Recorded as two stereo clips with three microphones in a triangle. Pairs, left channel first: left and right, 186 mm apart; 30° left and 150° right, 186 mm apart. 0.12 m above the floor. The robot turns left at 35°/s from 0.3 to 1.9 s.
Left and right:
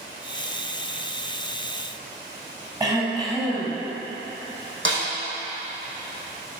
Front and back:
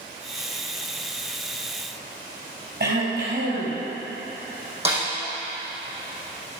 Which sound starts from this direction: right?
A snare drum, at 4.8 s.